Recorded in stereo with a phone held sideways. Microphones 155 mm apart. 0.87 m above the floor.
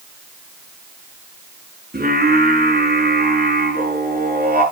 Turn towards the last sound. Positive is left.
turn(degrees=-80)